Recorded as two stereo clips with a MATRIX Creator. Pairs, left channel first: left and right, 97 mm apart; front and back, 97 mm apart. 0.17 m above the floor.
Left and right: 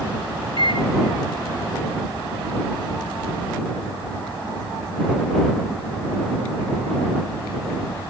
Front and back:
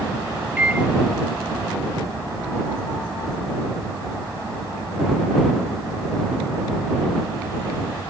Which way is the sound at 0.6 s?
105° left.